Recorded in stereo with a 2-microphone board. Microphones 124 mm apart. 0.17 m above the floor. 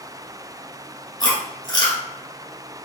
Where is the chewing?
35° left (ahead or behind), 1.7 m.